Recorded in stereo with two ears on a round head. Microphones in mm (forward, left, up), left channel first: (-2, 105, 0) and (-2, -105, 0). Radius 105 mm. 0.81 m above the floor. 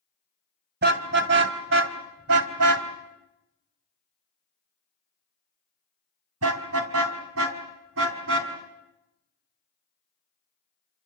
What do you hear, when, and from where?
0.8 s a car horn: 45° right (ahead or behind), 2.5 m; by 8.5 s 55° right (ahead or behind), 4 m